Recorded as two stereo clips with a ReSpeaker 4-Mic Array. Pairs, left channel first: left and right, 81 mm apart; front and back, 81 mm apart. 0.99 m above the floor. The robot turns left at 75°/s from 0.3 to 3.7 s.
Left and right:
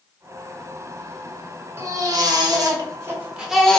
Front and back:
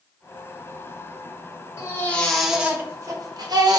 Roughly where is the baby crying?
Ahead right.